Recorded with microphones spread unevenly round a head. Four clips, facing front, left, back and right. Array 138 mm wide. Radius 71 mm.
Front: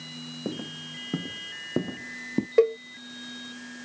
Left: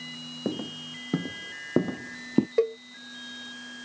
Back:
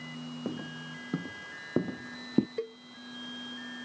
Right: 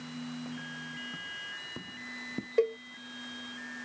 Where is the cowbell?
10° left.